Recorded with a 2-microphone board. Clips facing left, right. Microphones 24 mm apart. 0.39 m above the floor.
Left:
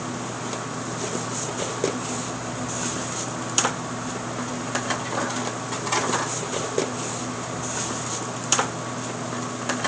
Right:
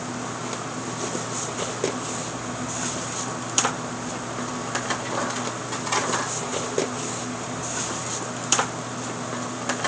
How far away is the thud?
I don't hear a thud.